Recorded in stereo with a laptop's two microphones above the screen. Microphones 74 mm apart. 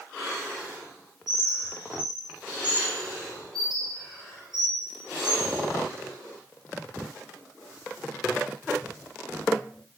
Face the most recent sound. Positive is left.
turn(degrees=-80)